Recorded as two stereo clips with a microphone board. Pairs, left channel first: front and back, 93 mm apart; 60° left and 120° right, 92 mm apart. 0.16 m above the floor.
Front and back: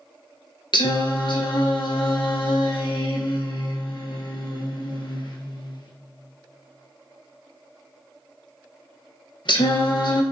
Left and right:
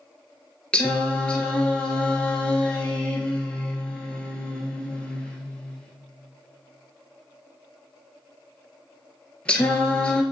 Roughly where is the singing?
Ahead.